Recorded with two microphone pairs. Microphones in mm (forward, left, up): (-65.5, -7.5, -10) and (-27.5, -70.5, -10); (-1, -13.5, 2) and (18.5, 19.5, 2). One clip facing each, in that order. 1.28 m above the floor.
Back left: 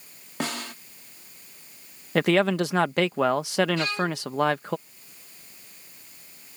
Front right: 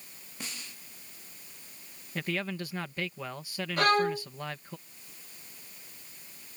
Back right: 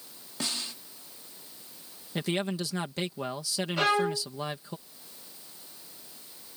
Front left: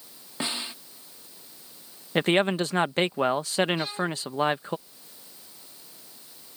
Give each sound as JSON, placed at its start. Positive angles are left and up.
{"t": 0.4, "sound": "a snare drum", "azimuth_deg": 125}
{"t": 2.1, "sound": "a man speaking", "azimuth_deg": 110}
{"t": 3.8, "sound": "a violin", "azimuth_deg": -100}